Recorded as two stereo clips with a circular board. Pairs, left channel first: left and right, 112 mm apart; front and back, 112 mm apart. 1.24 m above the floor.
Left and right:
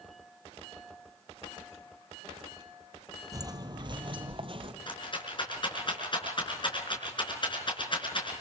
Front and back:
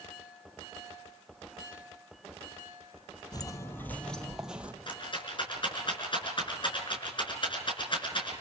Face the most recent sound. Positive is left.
turn(degrees=45)